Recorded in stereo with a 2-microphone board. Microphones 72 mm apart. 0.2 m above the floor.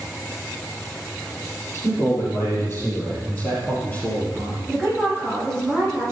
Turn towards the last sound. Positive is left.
turn(degrees=10)  # may be behind; listen again after turning